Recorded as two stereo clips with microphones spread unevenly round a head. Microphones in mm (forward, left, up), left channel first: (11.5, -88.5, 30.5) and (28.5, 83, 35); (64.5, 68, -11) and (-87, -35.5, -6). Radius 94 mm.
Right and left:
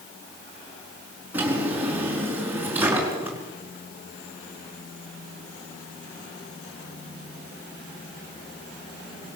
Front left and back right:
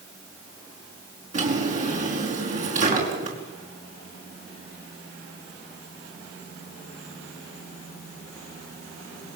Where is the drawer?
165° left, 5 m.